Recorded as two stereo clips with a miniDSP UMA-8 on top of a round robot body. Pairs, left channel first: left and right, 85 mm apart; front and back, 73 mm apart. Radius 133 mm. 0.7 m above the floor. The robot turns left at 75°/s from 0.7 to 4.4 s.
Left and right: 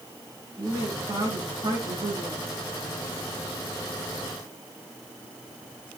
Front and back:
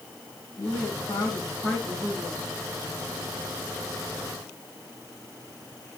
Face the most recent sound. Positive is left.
turn(degrees=75)